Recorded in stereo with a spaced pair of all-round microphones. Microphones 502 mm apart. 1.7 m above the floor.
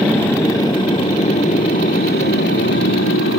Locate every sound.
0.0 s a motorcycle: 5° left (ahead or behind); by 3.4 s 25° left (ahead or behind)